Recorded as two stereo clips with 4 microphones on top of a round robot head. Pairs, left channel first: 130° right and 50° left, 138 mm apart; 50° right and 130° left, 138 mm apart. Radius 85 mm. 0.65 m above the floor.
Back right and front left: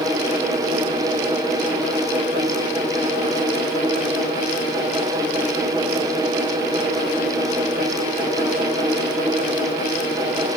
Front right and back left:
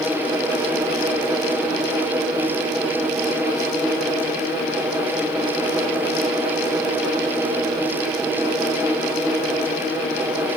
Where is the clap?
I don't hear a clap.